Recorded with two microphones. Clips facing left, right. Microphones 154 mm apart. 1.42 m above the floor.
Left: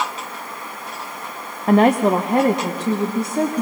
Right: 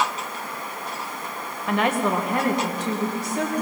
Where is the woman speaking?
40° left (ahead or behind), 0.7 m; by 3.6 s 30° left (ahead or behind), 2.5 m.